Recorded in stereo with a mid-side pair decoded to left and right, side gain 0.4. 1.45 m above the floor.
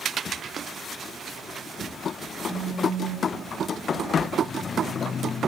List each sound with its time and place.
2.5 s a phone buzzing: 25° right, 9 m